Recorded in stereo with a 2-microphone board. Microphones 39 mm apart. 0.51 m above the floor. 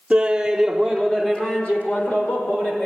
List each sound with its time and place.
0.1 s laughter: 25° right (ahead or behind), 0.9 m; by 2.9 s 50° left (ahead or behind), 2 m